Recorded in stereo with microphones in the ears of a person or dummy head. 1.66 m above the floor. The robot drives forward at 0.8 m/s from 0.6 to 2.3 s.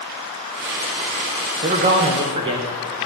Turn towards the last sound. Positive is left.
turn(degrees=-25)  # may be behind; listen again after turning